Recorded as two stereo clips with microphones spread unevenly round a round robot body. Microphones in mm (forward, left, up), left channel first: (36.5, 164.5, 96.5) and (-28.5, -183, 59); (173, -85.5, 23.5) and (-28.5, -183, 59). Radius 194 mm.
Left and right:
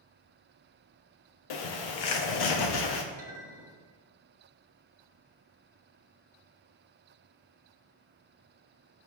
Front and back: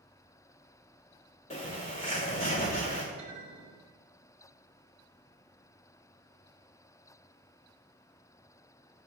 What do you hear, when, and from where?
1.5 s a bird: 85° left, 0.9 m
3.2 s a clink: 150° left, 1.8 m